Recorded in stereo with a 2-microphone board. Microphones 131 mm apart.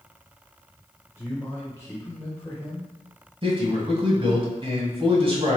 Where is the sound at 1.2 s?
20° left (ahead or behind), 1.1 m.